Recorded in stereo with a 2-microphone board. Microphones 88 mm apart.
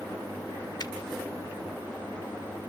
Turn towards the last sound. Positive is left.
turn(degrees=55)  # may be behind; listen again after turning